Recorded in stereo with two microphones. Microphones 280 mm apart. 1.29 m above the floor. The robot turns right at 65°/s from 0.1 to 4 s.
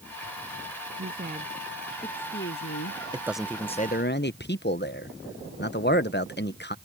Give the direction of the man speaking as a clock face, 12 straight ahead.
1 o'clock.